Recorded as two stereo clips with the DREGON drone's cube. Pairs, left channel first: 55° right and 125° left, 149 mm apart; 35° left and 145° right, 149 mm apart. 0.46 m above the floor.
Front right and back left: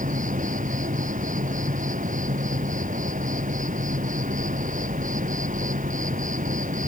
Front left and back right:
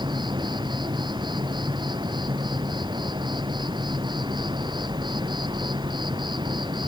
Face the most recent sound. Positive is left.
turn(degrees=155)